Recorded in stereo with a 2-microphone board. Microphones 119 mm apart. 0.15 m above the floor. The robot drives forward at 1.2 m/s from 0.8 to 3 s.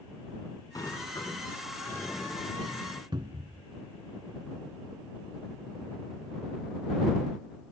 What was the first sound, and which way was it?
A sliding door, 30° left (ahead or behind).